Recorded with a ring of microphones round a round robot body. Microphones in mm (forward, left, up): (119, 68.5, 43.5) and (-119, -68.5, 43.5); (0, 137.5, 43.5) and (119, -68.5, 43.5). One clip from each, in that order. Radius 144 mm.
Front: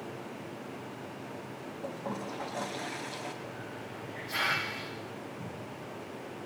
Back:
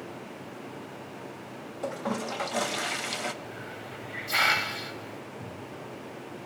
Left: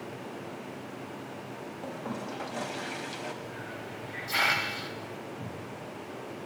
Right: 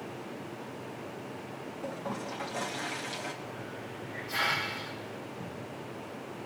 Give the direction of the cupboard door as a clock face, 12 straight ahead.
8 o'clock.